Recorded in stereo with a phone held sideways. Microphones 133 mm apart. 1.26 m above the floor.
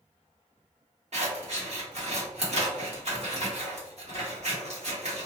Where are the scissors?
55° right (ahead or behind), 1.0 m.